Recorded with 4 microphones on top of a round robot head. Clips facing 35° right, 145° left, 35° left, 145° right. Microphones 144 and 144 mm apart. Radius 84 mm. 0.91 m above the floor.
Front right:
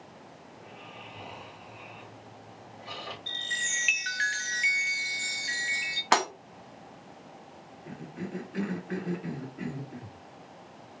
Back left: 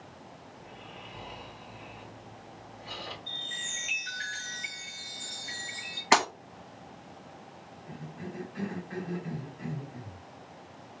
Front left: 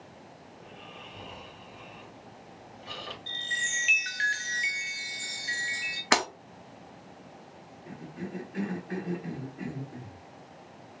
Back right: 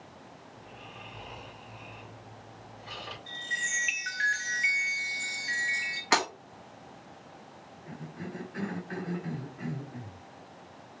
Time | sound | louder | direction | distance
0.5 | snoring | front right 2 dB, front left 1 dB | 40° left | 3 m
3.3 | a chime | front right 3 dB, front left 1 dB | 25° right | 0.9 m
6.1 | breaking glass | back left 1 dB, front left 1 dB | 65° left | 1.3 m
7.9 | a cough | front right 4 dB, front left 2 dB | 35° right | 1.6 m